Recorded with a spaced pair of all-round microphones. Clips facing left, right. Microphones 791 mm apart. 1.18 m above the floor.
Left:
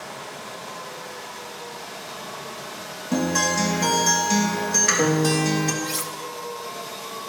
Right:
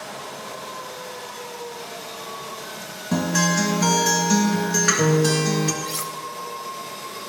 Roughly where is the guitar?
Right.